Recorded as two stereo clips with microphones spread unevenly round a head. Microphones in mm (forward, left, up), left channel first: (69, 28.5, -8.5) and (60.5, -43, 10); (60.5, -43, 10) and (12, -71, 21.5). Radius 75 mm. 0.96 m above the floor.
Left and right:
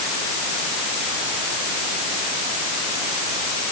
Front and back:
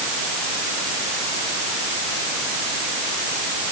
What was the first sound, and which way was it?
Only background noise.